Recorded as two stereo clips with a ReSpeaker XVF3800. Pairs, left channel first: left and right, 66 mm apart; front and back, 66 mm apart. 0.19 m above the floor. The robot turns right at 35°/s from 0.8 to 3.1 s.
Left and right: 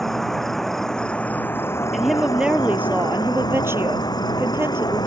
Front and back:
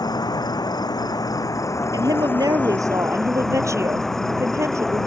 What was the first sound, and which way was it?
An insect, 5° left.